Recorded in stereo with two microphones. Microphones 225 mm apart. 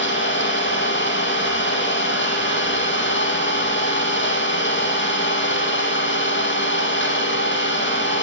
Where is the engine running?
55° left (ahead or behind), 4.5 m.